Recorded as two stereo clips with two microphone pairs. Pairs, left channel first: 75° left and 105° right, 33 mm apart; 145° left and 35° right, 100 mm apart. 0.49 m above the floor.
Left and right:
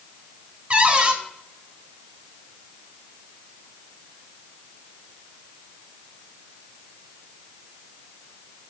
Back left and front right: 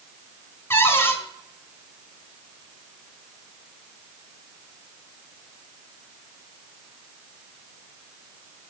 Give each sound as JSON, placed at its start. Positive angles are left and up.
{"t": 0.7, "sound": "a cupboard door", "azimuth_deg": -155, "distance_m": 1.3}